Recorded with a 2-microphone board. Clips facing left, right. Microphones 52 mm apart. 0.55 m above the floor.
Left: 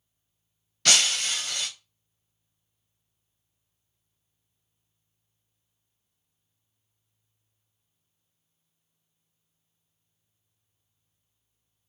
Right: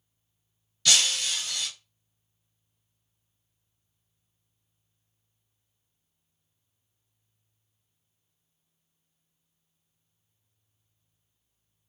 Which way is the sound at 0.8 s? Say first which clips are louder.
Left 2 dB; 55° left (ahead or behind).